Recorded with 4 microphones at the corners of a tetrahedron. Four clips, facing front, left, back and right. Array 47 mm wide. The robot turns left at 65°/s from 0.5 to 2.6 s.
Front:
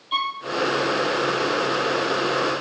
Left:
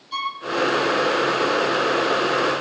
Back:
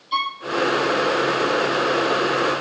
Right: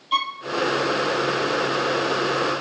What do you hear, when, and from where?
0.1 s a violin: 65° right, 3.5 m